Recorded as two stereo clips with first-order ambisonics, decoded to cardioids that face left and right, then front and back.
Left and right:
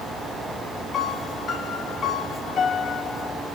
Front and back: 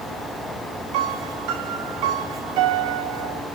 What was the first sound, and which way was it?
A piano, 155° left.